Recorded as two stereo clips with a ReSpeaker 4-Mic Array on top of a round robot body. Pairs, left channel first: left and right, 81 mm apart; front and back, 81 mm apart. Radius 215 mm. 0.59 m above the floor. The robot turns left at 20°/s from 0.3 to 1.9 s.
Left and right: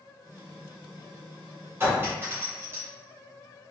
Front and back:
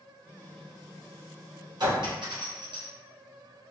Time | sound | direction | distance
1.8 | a clink | 150° right | 1.6 m